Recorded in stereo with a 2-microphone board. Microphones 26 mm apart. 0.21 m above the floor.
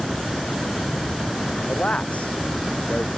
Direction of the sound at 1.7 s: 55° left (ahead or behind).